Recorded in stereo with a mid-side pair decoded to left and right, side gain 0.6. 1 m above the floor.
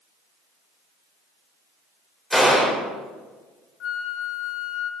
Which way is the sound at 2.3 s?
Straight ahead.